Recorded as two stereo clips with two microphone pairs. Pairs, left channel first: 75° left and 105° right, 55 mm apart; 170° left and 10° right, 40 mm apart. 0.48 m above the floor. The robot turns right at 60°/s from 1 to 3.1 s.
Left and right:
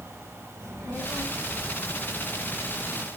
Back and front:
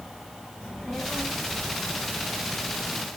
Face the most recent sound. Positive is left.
turn(degrees=35)